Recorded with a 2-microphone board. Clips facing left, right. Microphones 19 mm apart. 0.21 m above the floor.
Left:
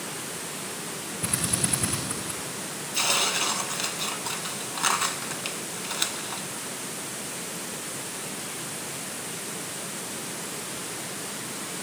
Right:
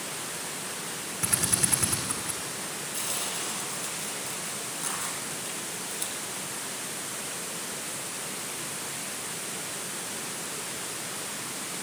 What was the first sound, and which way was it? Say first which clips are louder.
A drill: even; 80° right.